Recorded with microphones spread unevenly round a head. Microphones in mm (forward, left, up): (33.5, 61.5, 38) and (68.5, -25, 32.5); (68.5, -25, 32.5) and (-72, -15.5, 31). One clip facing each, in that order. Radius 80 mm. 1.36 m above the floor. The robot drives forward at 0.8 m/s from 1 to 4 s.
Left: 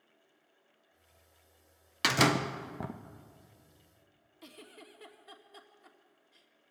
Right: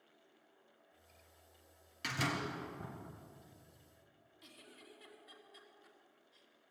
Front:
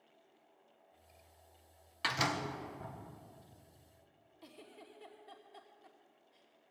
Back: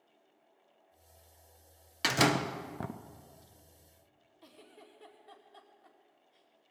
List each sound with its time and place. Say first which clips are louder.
2.0 s a door slam: left 11 dB, back 8 dB; 125° left, 0.5 m; by 3.0 s 160° left, 1.1 m
4.4 s a giggle: left 7 dB, front 1 dB; 80° left, 2.5 m